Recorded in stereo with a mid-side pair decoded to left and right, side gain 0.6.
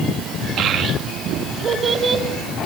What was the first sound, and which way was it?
A child speaking, 55° right.